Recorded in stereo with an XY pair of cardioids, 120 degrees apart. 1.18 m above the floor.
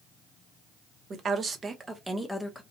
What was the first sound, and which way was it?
A woman speaking, 40° right.